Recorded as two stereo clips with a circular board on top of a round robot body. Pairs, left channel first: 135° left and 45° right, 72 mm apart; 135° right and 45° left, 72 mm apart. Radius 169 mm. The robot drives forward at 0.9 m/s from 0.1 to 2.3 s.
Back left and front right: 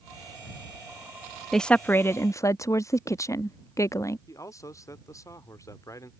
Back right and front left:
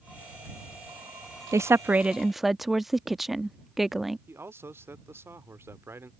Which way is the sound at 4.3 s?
100° left.